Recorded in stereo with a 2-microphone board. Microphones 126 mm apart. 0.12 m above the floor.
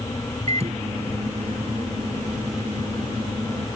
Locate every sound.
0.5 s a microwave: 55° right (ahead or behind)